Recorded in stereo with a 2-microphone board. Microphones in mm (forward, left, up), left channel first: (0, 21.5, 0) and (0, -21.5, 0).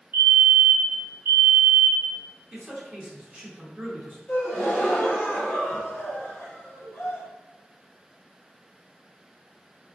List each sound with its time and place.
0.1 s a fire alarm: 50° right (ahead or behind), 1.5 m
2.5 s a man speaking: 30° right (ahead or behind), 0.9 m
4.3 s a gasp: 45° left (ahead or behind), 0.9 m